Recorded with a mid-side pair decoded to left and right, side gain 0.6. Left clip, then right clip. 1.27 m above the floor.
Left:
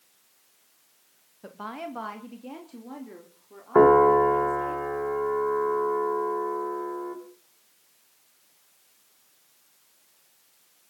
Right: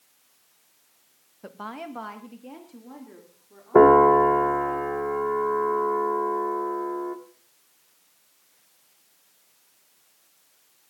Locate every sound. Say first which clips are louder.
1.4 s a woman speaking: even; 10° right, 1.6 m; by 4.8 s 30° left, 5 m
3.8 s a piano: right 2 dB; 15° right, 2 m